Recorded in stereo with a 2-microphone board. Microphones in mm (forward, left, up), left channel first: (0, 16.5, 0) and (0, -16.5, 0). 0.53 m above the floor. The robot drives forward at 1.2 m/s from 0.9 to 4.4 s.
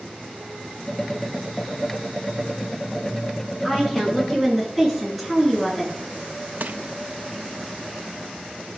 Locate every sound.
3.6 s a woman speaking: 5° left (ahead or behind), 7.5 m
6.6 s crushing: 60° right (ahead or behind), 0.7 m